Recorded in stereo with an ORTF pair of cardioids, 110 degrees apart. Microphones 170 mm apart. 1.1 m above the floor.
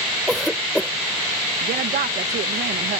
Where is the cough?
5° left.